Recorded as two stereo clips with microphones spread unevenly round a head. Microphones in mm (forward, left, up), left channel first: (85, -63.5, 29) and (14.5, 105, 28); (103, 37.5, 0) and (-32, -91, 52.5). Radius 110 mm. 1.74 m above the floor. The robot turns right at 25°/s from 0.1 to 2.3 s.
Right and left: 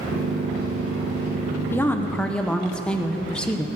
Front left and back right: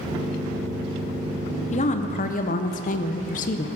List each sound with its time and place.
1.7 s a woman speaking: 5° right, 0.7 m; by 3.7 s 10° left, 0.7 m